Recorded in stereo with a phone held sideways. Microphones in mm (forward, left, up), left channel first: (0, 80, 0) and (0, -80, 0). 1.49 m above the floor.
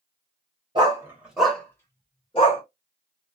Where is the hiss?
No hiss in this recording.